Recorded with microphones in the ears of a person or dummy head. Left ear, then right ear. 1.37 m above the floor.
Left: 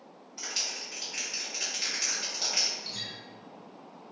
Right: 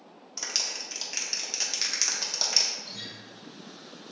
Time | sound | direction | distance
0.4 | a clap | 60° right (ahead or behind) | 0.9 m
2.8 | a guitar | 75° left (ahead or behind) | 1.1 m